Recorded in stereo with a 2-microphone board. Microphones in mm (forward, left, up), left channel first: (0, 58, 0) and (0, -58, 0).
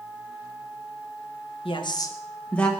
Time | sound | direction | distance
1.6 | a woman speaking | 50° left (ahead or behind) | 0.8 m